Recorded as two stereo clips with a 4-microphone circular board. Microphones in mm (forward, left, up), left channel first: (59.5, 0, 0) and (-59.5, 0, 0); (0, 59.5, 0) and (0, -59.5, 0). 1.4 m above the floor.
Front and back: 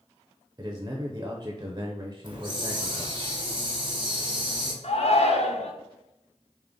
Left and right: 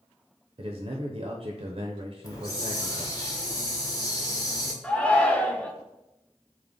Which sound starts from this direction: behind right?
A man speaking, at 0.6 s.